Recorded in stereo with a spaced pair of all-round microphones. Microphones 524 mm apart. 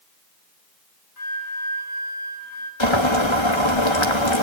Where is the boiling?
60° left (ahead or behind), 2.5 m.